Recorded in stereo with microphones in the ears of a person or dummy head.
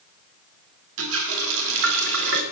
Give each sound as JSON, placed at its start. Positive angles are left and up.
{"t": 1.0, "sound": "a running tap", "side_deg": -75, "distance_m": 2.0}